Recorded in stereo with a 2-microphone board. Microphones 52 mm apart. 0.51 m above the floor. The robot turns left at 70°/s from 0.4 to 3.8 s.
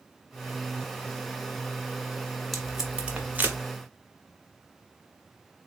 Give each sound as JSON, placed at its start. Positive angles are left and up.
{"t": 2.5, "sound": "tape being pulled", "side_deg": 0, "distance_m": 0.9}